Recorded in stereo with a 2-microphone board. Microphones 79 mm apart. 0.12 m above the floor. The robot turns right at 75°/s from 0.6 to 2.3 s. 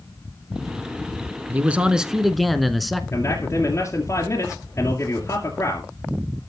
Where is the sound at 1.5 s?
20° right (ahead or behind), 1.1 m; by 3.0 s centre (ahead or behind), 1.1 m.